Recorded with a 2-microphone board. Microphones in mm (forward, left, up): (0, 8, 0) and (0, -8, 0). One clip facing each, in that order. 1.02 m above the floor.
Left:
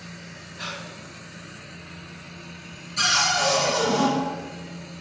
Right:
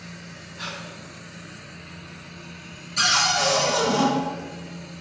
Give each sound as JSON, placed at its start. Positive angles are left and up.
{"t": 0.6, "sound": "breathing", "side_deg": -15, "distance_m": 1.8}
{"t": 3.0, "sound": "a cupboard door", "side_deg": -20, "distance_m": 0.8}